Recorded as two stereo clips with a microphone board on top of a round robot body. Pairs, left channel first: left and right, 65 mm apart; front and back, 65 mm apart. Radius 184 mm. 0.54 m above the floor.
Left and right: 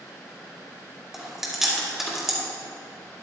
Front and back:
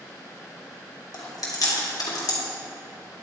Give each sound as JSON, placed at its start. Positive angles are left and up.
{"t": 1.1, "sound": "chewing", "azimuth_deg": -5, "distance_m": 2.0}